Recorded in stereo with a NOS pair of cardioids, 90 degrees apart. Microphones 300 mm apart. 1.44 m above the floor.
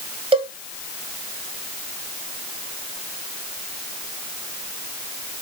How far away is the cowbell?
About 1.3 m.